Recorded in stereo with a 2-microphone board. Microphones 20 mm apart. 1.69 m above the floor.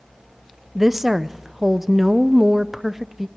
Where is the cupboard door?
I don't hear a cupboard door.